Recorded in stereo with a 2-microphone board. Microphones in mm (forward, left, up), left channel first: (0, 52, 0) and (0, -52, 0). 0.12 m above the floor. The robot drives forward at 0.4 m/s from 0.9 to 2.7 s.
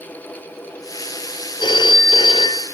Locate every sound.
1.6 s a phone ringing: 45° left (ahead or behind), 1.3 m; by 2.6 s 55° left (ahead or behind), 1.1 m